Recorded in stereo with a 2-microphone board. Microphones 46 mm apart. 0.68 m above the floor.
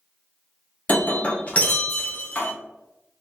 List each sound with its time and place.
0.9 s breaking glass: 35° left (ahead or behind), 0.8 m